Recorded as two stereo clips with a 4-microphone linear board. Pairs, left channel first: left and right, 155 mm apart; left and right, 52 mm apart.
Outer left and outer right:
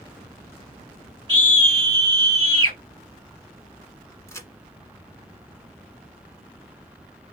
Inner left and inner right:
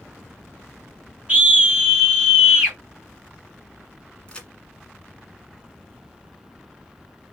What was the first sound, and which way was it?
A scream, 30° right (ahead or behind).